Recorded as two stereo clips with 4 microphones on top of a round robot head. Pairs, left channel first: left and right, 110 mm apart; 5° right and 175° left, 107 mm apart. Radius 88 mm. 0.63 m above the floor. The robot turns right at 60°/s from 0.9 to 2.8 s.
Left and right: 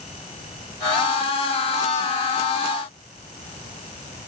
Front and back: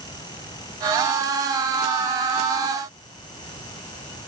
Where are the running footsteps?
No running footsteps in this recording.